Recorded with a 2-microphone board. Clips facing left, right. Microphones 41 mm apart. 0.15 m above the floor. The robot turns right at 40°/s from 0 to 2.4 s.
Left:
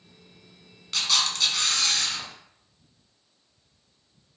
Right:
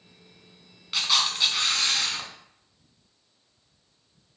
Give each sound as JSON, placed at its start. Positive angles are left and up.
{"t": 0.9, "sound": "a camera shutter", "side_deg": -10, "distance_m": 0.6}